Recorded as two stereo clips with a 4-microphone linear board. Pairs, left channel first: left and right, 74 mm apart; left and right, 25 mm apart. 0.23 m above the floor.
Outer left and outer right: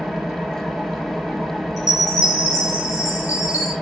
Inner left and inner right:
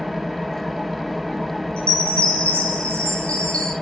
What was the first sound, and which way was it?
An engine running, centre (ahead or behind).